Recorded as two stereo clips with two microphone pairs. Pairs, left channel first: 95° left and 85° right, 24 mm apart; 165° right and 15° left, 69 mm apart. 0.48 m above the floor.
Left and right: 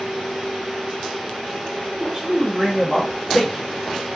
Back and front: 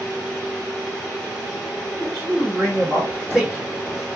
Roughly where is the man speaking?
Ahead right.